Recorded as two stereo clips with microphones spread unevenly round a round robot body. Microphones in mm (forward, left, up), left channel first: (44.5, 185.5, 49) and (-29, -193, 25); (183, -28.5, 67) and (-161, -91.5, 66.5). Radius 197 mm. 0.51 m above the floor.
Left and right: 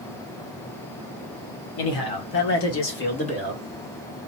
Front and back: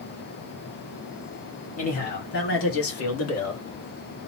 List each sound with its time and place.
1.8 s a man speaking: 75° left, 2 m; by 3.6 s 10° right, 1.7 m